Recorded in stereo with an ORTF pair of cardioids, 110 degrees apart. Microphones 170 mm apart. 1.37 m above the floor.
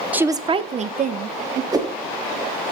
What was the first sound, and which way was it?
A woman speaking, 10° right.